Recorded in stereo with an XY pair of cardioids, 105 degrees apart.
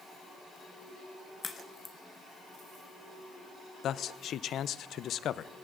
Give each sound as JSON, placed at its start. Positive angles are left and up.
{"t": 1.4, "sound": "a crack", "azimuth_deg": 30, "distance_m": 1.7}
{"t": 3.8, "sound": "a man speaking", "azimuth_deg": 65, "distance_m": 0.7}